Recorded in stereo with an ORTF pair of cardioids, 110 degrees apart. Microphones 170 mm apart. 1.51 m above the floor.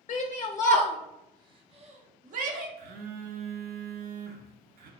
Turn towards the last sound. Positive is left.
turn(degrees=-60)